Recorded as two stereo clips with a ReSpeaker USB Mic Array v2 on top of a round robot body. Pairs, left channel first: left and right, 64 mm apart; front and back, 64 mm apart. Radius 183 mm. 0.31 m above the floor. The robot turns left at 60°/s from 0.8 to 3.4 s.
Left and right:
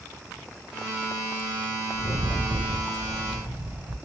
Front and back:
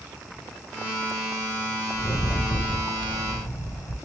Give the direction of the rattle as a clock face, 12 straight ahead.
10 o'clock.